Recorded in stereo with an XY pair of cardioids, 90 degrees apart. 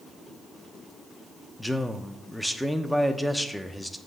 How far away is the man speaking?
About 0.8 m.